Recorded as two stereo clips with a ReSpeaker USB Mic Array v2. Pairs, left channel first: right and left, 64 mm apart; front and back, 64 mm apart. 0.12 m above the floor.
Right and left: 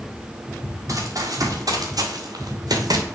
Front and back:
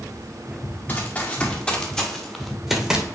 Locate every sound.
0.9 s running footsteps: 60° left, 2 m; by 3.0 s 100° left, 1.7 m